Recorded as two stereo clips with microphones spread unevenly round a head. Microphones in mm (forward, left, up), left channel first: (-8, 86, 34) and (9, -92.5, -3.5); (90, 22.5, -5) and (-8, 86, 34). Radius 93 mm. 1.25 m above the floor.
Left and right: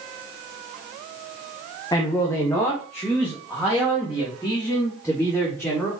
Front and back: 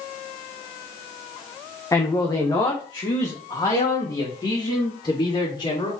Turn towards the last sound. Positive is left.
turn(degrees=10)